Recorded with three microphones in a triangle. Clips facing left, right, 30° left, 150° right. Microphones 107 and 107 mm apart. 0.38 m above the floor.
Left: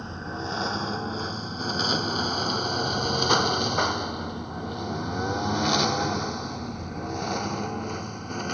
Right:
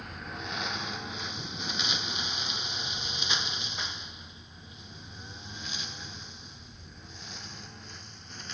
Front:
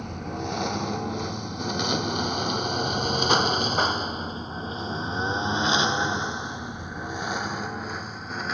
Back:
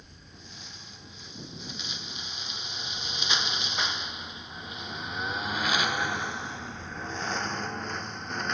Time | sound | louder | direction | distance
0.0 | a lawn mower | left 7 dB, front 21 dB | 30° left | ?